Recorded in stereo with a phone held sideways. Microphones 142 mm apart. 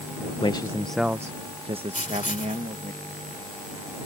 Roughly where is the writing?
Left.